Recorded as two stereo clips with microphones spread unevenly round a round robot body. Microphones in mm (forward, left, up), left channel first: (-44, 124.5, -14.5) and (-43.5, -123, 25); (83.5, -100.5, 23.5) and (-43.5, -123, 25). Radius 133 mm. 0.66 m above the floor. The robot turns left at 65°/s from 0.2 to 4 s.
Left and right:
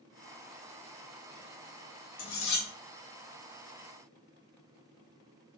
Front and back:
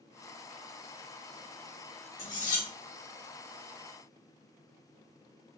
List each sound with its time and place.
2.2 s cutlery clinking: 65° left, 0.8 m; by 2.7 s 35° left, 0.8 m